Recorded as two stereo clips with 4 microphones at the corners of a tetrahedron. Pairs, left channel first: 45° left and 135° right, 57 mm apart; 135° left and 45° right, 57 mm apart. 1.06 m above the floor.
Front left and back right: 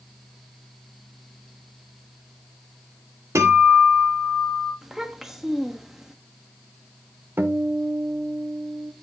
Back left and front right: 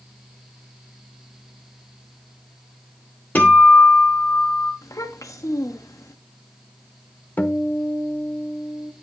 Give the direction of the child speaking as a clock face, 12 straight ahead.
7 o'clock.